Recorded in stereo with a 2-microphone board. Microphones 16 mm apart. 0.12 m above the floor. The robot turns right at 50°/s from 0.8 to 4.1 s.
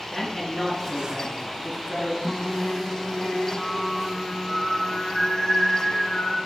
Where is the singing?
10° left, 0.6 m; by 6.4 s 100° left, 0.6 m.